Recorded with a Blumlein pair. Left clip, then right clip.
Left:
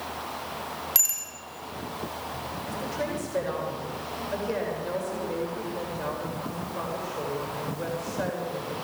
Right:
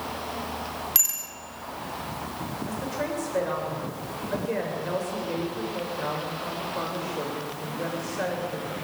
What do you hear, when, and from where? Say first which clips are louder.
0.9 s a bicycle bell: even; straight ahead, 5 m
2.7 s a woman speaking: right 1 dB; straight ahead, 7.5 m